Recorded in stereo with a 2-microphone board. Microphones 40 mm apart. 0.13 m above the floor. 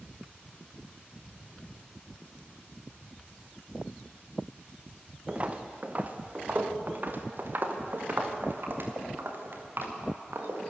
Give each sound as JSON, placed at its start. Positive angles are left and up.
{"t": 5.3, "sound": "footsteps", "side_deg": -30, "distance_m": 2.0}